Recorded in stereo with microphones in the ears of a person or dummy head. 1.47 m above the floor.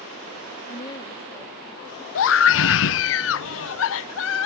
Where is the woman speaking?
25° left (ahead or behind); by 2.0 s 10° right (ahead or behind).